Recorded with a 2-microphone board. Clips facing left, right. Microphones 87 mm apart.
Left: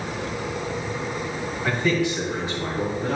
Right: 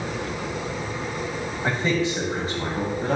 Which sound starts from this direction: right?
A man speaking, at 1.6 s.